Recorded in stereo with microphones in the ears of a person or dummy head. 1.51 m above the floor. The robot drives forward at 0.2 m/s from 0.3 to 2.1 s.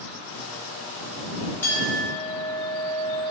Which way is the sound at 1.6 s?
10° left (ahead or behind).